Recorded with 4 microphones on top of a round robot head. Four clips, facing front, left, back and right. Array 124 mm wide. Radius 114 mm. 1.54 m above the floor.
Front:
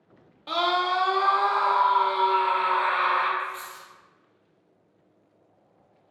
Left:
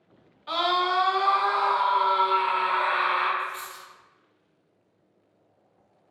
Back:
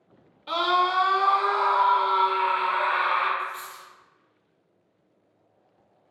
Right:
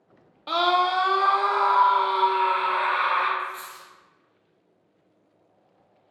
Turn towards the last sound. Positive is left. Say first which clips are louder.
# even, even
turn(degrees=105)